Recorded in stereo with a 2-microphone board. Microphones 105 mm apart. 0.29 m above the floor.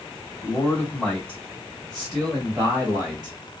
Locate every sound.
0.4 s a man speaking: 20° left (ahead or behind), 1.7 m; by 3.4 s 10° right (ahead or behind), 1.7 m